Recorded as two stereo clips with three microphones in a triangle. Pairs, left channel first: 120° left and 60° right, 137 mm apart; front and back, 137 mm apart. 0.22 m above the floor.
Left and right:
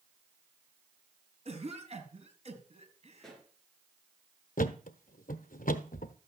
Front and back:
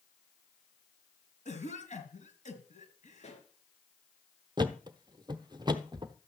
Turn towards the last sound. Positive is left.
turn(degrees=120)